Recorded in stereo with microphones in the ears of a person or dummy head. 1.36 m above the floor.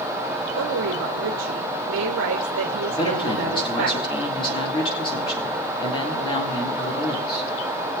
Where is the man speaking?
30° left (ahead or behind), 2 m.